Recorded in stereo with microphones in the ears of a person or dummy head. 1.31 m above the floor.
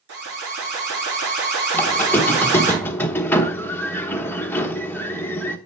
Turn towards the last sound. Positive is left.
turn(degrees=10)  # may be behind; listen again after turning